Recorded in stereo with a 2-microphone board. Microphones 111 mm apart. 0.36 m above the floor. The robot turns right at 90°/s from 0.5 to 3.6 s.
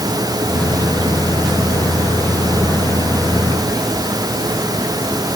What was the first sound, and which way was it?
Only background noise.